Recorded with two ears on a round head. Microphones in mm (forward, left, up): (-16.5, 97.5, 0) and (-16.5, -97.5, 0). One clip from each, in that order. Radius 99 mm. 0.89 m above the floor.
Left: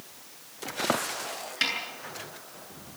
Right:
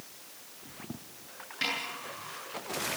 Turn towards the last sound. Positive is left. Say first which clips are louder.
# left 4 dB
turn(degrees=45)  # may be behind; listen again after turning